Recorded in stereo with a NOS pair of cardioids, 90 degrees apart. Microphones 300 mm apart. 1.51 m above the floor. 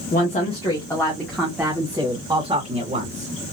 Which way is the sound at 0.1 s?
30° left.